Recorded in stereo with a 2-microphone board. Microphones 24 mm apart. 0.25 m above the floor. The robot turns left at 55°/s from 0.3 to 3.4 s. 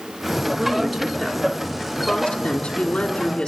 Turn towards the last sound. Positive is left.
turn(degrees=35)